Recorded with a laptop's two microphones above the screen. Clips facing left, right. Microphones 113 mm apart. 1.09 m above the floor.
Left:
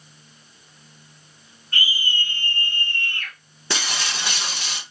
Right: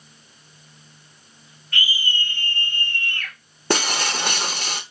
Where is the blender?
No blender in this recording.